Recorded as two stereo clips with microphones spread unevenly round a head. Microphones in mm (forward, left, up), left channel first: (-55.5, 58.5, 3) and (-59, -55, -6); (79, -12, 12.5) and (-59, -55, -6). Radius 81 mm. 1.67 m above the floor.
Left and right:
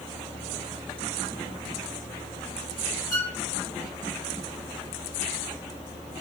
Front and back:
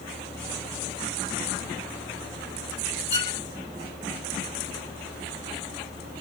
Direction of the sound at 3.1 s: 40° left.